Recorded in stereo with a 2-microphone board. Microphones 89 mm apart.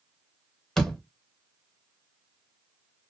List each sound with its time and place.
0.8 s a door slam: 5° left (ahead or behind), 0.9 m